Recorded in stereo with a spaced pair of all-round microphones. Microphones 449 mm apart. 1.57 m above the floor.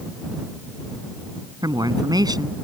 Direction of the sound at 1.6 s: 10° right (ahead or behind).